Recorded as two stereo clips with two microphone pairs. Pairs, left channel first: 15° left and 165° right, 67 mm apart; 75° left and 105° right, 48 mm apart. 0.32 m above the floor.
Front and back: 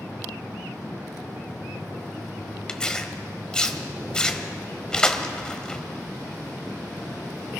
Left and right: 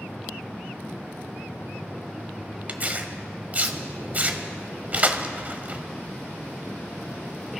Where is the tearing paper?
60° right, 1.1 m.